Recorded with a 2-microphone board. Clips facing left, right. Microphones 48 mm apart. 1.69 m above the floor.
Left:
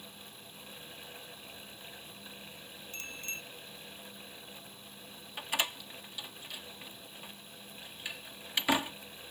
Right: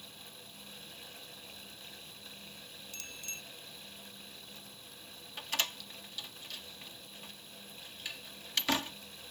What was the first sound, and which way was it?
A bicycle bell, 35° left (ahead or behind).